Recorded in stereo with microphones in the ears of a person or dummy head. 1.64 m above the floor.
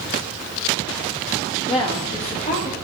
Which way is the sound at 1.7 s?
25° left (ahead or behind).